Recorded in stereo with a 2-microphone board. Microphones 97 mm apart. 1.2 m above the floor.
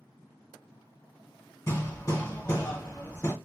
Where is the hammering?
35° left (ahead or behind), 1.3 m.